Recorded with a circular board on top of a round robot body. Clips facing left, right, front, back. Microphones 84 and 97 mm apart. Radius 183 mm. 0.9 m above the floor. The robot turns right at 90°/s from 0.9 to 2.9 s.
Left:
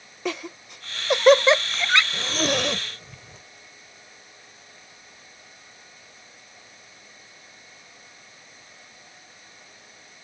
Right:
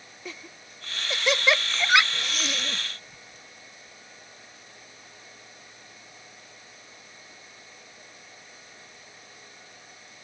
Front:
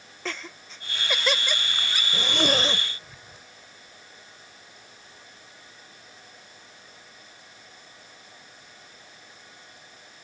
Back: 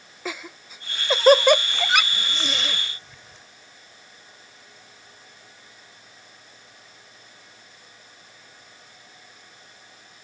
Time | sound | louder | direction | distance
0.2 | laughter | left 12 dB, back 2 dB | 100° left | ?
2.1 | a zipper | left 8 dB, front 6 dB | 15° left | ?